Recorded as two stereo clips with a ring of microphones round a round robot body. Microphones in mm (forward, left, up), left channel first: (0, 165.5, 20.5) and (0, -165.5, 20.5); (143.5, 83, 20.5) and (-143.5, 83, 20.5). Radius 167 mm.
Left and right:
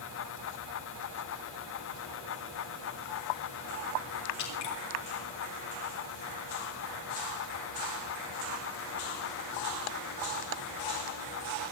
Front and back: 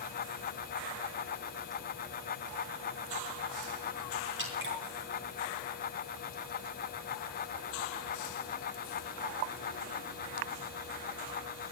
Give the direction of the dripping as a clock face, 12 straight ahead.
8 o'clock.